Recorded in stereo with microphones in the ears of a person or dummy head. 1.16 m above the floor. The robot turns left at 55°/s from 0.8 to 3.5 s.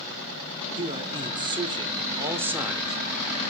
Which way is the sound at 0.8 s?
20° right (ahead or behind).